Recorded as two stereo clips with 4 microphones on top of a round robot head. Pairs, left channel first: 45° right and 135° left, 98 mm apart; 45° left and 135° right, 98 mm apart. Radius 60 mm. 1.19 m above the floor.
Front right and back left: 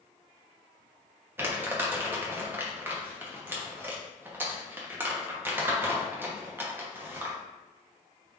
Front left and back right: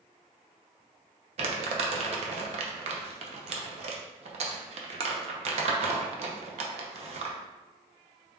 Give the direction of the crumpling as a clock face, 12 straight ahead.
5 o'clock.